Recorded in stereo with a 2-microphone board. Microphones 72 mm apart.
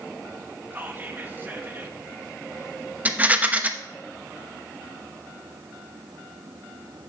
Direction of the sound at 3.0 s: 25° right (ahead or behind).